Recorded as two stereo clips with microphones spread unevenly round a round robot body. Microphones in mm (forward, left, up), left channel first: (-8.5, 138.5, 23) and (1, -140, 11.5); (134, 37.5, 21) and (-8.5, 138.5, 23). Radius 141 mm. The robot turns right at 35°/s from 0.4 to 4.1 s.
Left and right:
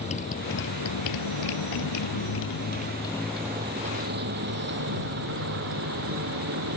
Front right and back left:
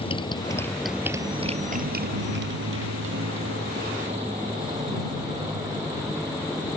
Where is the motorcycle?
25° left; by 6.8 s 130° right.